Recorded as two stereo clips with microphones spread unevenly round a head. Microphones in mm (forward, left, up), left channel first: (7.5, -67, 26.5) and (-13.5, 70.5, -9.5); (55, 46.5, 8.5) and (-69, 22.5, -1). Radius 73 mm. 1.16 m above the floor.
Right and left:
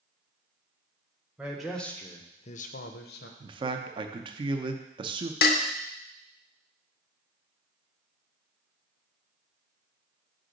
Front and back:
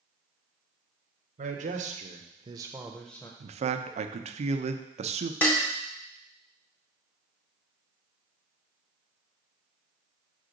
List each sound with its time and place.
1.4 s a man speaking: straight behind, 1.0 m; by 3.3 s 65° right, 0.8 m
3.4 s a man speaking: 155° left, 0.6 m
5.4 s dishes clattering: 65° right, 0.6 m